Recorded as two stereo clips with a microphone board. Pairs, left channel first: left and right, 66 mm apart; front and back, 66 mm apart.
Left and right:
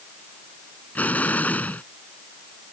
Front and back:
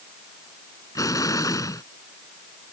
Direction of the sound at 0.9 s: 25° left.